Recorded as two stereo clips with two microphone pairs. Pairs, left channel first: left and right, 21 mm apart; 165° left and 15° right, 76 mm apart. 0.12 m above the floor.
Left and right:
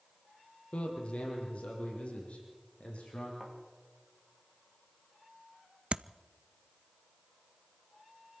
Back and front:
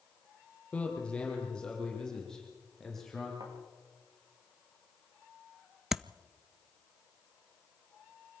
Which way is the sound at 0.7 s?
90° left.